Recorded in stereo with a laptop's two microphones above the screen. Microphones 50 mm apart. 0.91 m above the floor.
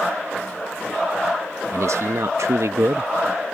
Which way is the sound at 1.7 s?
70° right (ahead or behind).